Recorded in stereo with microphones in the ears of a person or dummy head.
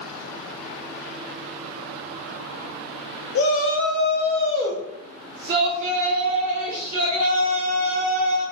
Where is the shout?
70° left (ahead or behind), 0.9 m; by 8.4 s 50° right (ahead or behind), 2.5 m.